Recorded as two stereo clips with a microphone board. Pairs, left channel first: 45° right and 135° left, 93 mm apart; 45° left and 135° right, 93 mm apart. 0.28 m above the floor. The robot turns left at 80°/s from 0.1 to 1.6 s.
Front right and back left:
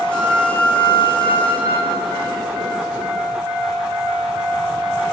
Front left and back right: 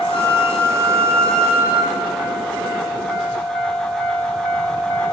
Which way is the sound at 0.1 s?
55° left.